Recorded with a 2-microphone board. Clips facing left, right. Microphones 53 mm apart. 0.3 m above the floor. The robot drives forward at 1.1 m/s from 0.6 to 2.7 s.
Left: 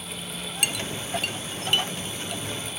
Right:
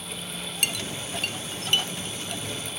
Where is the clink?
5° left (ahead or behind).